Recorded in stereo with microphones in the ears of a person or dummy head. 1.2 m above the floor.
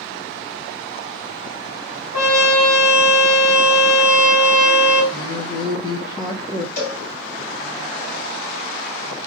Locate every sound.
2.1 s a trumpet: 45° left (ahead or behind), 2.5 m
5.1 s a woman speaking: 25° left (ahead or behind), 1.0 m
6.8 s a cowbell: 45° left (ahead or behind), 2.5 m